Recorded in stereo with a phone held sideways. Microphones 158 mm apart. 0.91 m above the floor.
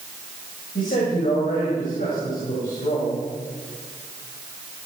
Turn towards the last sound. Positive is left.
turn(degrees=65)  # may be behind; listen again after turning